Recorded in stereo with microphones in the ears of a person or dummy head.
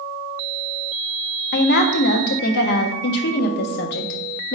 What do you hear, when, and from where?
1.5 s a woman speaking: 55° left (ahead or behind), 0.6 m